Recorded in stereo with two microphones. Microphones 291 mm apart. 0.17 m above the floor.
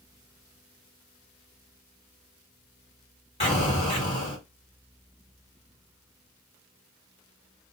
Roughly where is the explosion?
Centre.